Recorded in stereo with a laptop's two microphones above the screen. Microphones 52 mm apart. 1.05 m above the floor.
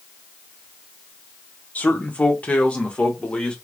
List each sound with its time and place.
1.8 s a man speaking: 30° left (ahead or behind), 1.0 m; by 3.5 s 20° left (ahead or behind), 1.7 m